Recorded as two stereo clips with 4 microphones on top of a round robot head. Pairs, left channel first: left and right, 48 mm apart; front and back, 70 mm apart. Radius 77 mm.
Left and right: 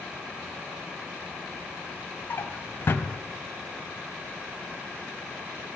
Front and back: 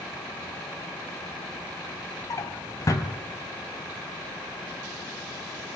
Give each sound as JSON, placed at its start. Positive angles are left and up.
{"t": 2.3, "sound": "a drawer", "azimuth_deg": 45, "distance_m": 3.0}